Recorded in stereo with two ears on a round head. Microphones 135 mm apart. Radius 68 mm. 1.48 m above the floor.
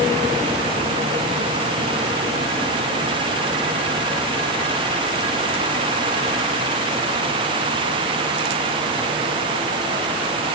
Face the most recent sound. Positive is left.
No sound to turn to.